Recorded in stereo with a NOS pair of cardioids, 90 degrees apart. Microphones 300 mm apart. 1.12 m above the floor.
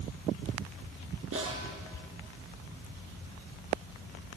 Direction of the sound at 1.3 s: 45° right.